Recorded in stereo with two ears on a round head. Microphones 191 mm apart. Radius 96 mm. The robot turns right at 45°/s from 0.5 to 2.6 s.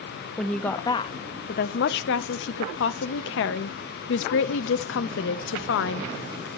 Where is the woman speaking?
5° left, 0.6 m; by 6.5 s 100° left, 0.6 m.